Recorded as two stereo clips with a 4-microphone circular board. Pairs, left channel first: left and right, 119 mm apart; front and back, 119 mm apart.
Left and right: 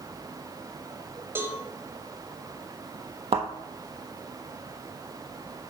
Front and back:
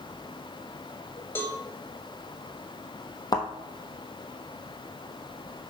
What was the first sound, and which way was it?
A cowbell, 45° right.